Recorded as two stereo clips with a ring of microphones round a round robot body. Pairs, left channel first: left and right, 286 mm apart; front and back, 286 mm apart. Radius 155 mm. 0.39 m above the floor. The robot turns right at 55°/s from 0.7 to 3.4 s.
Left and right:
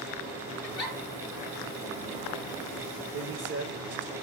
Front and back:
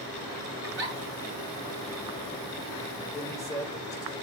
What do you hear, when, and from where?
0.6 s a giggle: 125° left, 5 m; by 0.9 s 140° left, 5 m
3.1 s a man speaking: 90° right, 1.4 m; by 4.1 s 75° right, 1.4 m